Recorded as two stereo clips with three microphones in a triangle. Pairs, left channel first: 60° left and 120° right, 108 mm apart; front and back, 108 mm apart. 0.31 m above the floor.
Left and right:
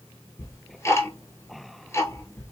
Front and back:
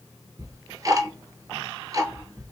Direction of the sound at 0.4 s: 125° left.